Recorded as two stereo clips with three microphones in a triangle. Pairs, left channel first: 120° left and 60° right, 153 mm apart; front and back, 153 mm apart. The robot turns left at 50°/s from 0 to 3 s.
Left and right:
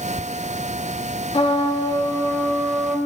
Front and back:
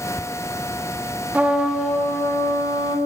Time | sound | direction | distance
1.3 | a trumpet | 105° left | 0.9 m